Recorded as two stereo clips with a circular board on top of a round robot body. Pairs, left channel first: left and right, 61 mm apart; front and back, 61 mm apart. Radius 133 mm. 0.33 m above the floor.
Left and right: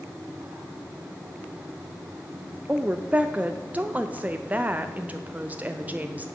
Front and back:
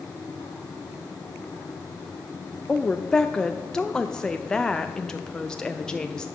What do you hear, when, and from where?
2.7 s a woman speaking: 65° right, 0.8 m